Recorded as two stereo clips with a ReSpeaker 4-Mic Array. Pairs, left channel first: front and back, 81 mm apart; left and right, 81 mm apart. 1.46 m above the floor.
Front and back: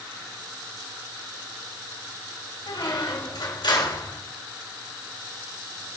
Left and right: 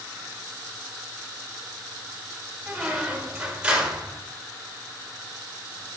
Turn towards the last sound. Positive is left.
turn(degrees=-15)